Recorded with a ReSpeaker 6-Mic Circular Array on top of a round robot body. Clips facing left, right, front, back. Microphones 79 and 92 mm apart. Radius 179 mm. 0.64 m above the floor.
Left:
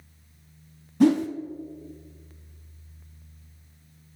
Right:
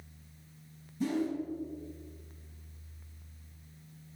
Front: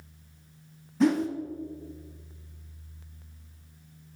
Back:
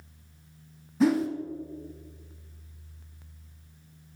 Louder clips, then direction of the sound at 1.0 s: Left 12 dB, even; 95° left.